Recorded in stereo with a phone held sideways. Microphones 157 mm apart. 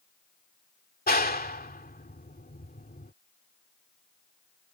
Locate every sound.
1.1 s a clap: 75° left (ahead or behind)